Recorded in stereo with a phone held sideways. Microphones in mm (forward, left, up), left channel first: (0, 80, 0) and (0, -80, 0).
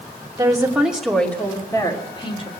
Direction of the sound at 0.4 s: 25° right (ahead or behind).